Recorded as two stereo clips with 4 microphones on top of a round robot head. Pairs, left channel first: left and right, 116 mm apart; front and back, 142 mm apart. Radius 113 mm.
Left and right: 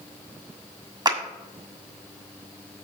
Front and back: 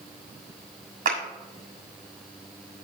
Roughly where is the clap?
Behind right.